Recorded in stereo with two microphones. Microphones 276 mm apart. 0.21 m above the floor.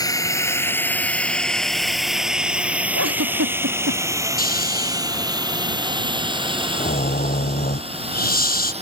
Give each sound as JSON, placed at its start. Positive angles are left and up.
{"t": 0.0, "sound": "a drone", "side_deg": 15}
{"t": 3.0, "sound": "a giggle", "side_deg": -60}
{"t": 4.4, "sound": "snoring", "side_deg": 35}